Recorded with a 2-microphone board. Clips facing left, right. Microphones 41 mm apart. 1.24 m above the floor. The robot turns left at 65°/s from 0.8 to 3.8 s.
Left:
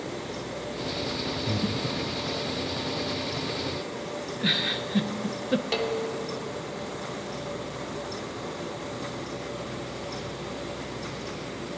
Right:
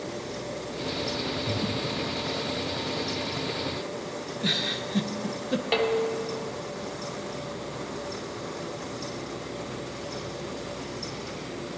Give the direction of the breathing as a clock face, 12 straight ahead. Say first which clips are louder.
Even; 8 o'clock.